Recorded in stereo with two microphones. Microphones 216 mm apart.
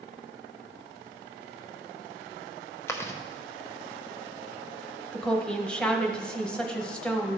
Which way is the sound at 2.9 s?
10° left (ahead or behind).